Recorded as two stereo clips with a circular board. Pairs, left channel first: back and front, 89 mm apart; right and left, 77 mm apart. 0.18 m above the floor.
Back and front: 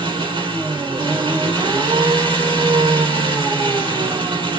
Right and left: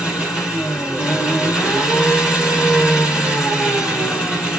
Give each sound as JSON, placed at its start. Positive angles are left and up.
{"t": 0.0, "sound": "an engine running", "azimuth_deg": 10, "distance_m": 3.0}